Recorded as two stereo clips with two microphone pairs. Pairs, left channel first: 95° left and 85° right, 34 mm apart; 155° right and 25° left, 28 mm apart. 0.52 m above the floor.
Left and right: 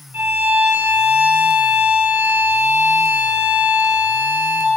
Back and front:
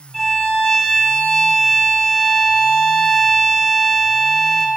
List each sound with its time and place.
0.1 s a violin: 80° right, 0.9 m